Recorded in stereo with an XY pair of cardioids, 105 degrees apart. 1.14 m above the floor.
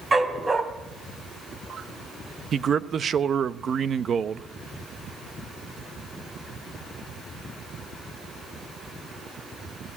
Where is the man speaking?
45° right, 0.9 m.